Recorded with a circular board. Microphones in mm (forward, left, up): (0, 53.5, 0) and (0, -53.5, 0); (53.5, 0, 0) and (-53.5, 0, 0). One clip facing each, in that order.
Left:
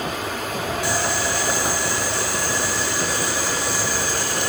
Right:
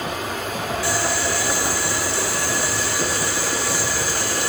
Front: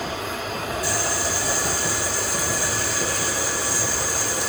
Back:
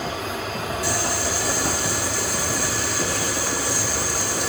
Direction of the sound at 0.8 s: 160° left.